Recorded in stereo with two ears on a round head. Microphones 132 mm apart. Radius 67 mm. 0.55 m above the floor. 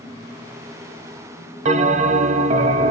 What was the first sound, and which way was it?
A bell, 50° right (ahead or behind).